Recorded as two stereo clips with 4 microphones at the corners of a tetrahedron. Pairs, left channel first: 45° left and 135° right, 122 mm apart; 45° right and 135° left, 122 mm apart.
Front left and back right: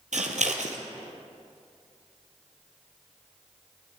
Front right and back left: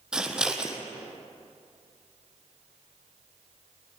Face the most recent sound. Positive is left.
turn(degrees=-140)